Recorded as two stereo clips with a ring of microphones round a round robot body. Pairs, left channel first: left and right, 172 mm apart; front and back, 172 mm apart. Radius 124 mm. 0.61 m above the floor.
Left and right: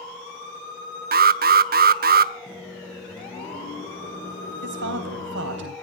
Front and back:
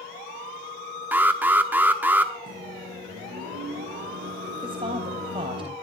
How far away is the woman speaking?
About 3.5 m.